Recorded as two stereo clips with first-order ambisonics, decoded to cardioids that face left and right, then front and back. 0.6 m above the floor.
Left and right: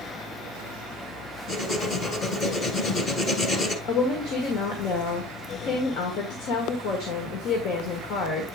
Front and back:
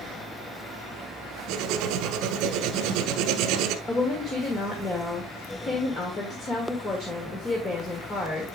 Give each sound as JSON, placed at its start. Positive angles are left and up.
{"t": 1.5, "sound": "writing", "azimuth_deg": 155, "distance_m": 1.1}
{"t": 3.9, "sound": "a woman speaking", "azimuth_deg": 65, "distance_m": 1.6}